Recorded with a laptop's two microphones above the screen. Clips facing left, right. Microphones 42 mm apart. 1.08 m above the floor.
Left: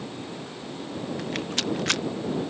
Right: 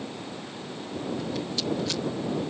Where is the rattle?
55° left (ahead or behind).